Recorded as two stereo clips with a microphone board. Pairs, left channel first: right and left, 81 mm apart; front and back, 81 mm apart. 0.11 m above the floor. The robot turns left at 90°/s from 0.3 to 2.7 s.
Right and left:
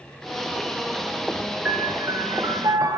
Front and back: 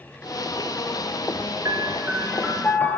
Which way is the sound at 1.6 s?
155° left.